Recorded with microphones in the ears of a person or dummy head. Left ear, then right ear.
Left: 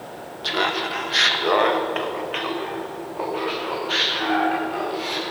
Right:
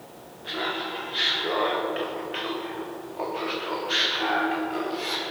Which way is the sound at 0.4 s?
80° left.